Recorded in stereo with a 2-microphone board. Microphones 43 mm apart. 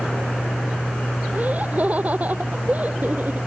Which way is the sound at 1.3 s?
40° right (ahead or behind).